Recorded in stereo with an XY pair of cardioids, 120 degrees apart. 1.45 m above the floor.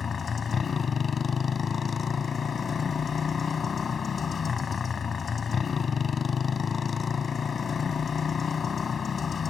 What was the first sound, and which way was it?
A motorcycle, 35° left.